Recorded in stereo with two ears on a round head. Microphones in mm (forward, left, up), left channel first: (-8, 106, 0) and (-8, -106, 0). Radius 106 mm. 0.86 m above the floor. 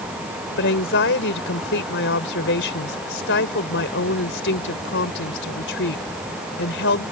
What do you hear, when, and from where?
0.6 s a woman speaking: 55° left (ahead or behind)